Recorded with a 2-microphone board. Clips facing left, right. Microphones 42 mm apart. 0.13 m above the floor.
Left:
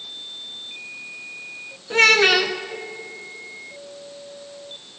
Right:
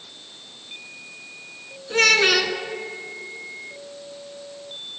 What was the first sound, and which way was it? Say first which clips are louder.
A child speaking: left 2 dB; 15° left (ahead or behind).